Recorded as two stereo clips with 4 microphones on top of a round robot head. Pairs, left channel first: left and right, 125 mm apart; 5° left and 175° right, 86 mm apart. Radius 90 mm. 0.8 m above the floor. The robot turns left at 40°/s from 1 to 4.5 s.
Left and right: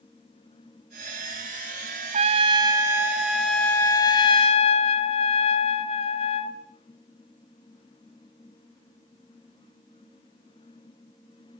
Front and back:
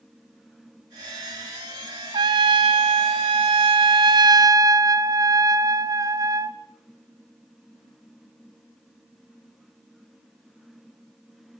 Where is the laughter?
No laughter in this recording.